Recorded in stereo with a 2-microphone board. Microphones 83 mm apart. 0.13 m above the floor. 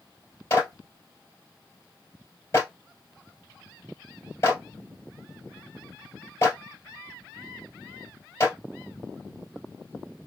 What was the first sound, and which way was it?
A clap, 30° left (ahead or behind).